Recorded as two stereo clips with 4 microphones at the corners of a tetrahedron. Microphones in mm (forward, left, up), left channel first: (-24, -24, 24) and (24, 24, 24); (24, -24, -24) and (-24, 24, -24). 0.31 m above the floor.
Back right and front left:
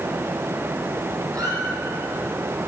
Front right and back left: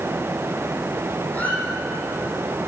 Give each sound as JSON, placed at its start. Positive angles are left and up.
{"t": 1.3, "sound": "a squeak", "azimuth_deg": 20, "distance_m": 7.5}